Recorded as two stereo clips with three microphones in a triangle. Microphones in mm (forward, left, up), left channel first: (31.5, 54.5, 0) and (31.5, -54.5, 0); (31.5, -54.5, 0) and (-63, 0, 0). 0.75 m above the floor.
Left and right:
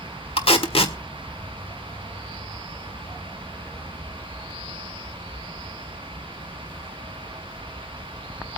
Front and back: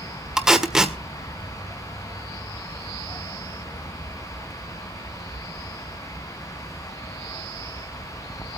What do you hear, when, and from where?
0.4 s tape being pulled: 65° left, 1.3 m